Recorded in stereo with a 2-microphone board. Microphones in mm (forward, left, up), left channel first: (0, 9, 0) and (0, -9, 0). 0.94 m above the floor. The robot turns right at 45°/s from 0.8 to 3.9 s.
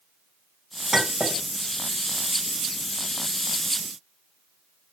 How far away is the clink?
About 3 m.